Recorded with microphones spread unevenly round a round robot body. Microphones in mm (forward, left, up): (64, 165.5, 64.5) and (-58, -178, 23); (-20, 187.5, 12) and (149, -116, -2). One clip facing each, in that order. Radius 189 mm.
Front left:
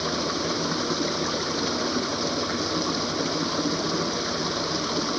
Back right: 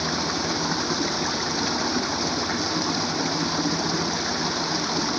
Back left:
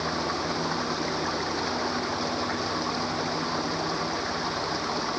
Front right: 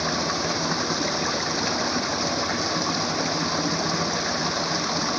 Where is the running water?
35° right.